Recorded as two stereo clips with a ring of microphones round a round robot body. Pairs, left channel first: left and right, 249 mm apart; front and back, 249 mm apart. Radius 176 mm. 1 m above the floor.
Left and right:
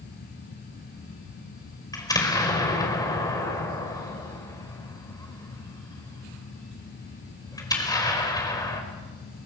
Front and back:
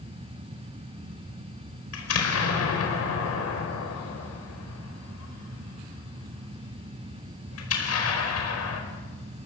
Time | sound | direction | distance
1.9 | an explosion | 15° left | 4.5 m